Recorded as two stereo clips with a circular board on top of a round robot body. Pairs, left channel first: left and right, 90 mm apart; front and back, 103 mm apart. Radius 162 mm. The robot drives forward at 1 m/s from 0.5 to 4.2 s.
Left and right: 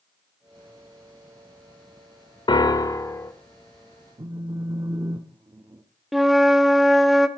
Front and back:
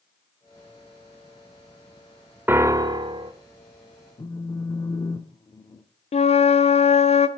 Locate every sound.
2.5 s a piano: 110° left, 0.9 m; by 3.3 s 150° left, 1.4 m
4.2 s a phone buzzing: 50° right, 1.3 m
6.1 s a flute: straight ahead, 0.9 m